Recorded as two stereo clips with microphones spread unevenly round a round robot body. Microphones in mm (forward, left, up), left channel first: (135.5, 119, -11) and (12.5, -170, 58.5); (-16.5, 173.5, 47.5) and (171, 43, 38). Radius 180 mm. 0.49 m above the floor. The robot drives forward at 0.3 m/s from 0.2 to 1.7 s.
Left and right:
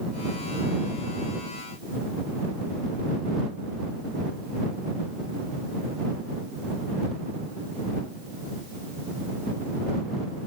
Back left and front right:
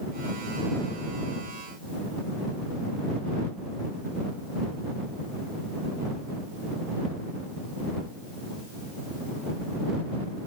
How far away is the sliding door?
I don't hear a sliding door.